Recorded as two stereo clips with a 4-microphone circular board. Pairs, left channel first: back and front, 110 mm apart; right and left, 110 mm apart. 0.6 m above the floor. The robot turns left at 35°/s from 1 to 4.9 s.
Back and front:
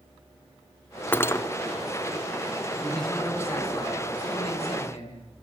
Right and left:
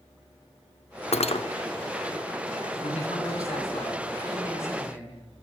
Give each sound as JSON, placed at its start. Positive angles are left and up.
{"t": 1.1, "sound": "cutlery clinking", "azimuth_deg": -105, "distance_m": 0.6}
{"t": 2.8, "sound": "a man speaking", "azimuth_deg": -90, "distance_m": 6.5}